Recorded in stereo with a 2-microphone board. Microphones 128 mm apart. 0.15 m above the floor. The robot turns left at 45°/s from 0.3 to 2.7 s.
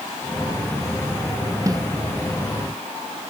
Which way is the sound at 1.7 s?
25° right (ahead or behind).